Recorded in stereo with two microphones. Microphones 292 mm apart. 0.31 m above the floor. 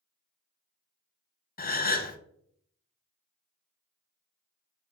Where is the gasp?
30° left (ahead or behind), 0.5 m.